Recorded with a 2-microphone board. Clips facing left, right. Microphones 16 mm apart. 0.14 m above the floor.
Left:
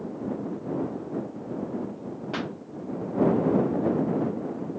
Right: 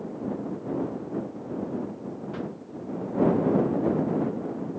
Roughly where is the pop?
Left.